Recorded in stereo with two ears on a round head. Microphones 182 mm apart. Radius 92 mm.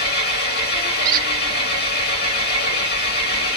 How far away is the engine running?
About 1.3 m.